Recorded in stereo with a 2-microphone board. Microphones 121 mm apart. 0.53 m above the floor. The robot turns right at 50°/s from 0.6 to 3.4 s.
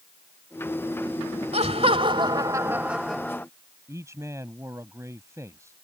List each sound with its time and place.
1.5 s laughter: 80° right; by 3.5 s 15° left
3.9 s a man speaking: 25° right (ahead or behind)